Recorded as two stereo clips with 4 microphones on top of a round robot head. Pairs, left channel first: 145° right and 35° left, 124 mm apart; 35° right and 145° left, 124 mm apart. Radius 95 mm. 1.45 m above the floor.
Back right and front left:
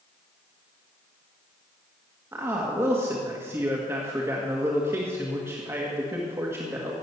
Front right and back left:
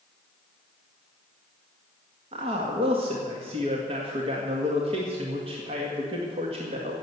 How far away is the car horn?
No car horn in this recording.